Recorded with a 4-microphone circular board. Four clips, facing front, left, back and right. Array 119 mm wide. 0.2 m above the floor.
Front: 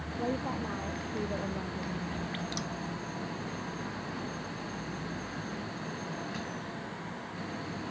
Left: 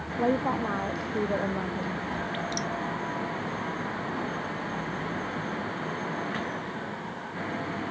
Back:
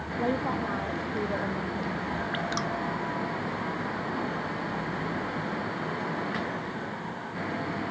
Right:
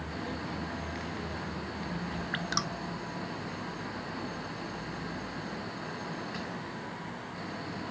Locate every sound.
0.2 s a woman speaking: 110° left; by 2.0 s 105° left
2.3 s dripping: 125° right